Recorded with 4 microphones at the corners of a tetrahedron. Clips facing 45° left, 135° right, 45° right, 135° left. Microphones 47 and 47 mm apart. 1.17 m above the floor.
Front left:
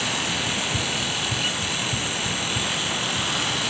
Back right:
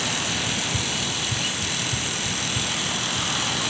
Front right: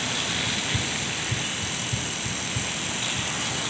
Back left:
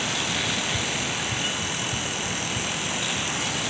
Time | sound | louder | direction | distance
0.5 | running footsteps | front left 1 dB, back left 1 dB | 15° right | ?